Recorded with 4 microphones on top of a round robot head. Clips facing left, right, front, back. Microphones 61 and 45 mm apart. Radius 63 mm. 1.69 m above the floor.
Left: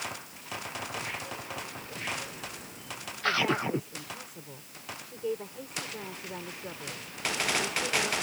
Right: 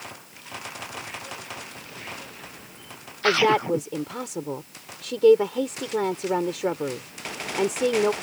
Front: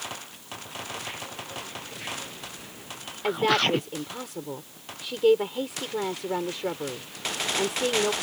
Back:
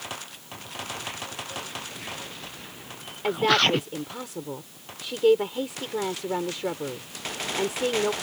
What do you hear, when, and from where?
3.2 s a woman speaking: 90° right